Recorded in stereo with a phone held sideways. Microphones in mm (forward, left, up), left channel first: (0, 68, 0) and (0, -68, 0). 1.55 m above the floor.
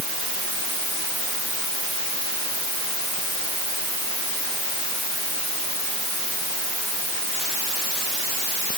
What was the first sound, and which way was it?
Only background noise.